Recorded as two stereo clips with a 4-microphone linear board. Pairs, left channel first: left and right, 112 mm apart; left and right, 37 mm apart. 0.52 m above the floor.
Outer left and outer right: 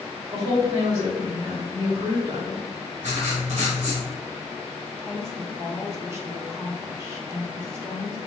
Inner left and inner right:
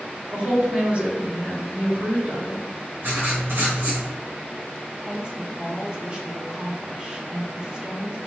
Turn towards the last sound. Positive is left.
turn(degrees=-20)  # may be behind; listen again after turning